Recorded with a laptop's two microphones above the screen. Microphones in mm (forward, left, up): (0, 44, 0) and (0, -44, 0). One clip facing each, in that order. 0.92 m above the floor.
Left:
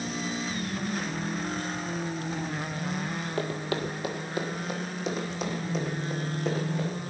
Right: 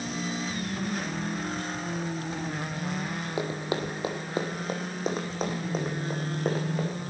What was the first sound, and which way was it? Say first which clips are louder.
Running footsteps: right 1 dB; 15° right (ahead or behind).